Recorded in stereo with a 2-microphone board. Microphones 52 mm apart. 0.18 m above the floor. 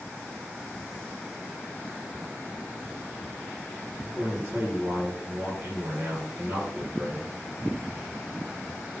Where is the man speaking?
20° right (ahead or behind), 4 m.